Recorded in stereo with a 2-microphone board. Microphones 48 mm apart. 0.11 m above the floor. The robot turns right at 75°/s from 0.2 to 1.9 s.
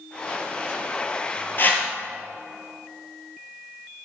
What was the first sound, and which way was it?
A whoosh, 45° left (ahead or behind).